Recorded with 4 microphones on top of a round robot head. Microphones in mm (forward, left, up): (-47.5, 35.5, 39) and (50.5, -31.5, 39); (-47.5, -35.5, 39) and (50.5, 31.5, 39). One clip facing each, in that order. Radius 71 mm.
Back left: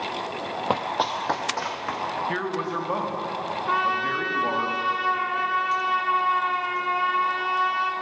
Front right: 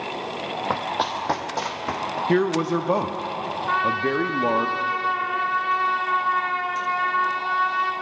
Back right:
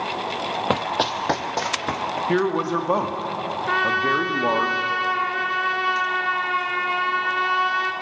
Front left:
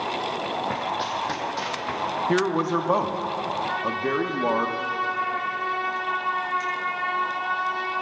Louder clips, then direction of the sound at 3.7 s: Front right 2 dB, back right 4 dB; 135° right.